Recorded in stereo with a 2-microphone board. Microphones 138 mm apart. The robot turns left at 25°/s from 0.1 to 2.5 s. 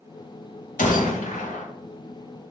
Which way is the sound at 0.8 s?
70° left (ahead or behind).